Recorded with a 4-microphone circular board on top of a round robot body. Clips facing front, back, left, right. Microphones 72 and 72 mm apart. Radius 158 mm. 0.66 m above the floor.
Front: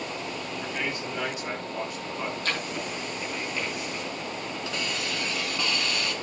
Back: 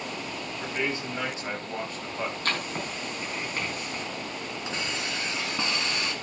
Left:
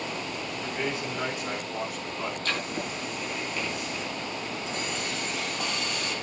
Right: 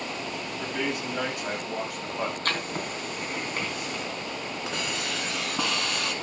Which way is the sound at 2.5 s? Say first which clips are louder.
Even, right 1 dB; 135° right.